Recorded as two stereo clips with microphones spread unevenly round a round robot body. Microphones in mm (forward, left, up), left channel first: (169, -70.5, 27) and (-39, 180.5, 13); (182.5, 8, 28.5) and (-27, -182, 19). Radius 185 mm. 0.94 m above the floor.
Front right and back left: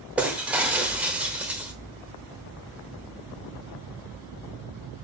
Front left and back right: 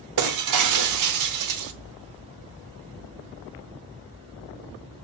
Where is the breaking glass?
145° right, 1.0 m.